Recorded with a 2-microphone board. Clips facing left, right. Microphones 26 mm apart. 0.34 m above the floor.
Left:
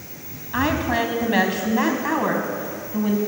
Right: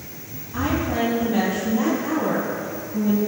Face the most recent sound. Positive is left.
turn(degrees=50)  # may be behind; listen again after turning